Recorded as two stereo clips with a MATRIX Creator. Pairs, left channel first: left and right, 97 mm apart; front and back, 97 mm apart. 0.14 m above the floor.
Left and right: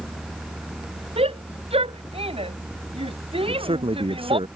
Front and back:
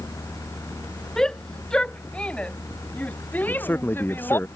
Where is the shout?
85° right; by 4.4 s 65° right.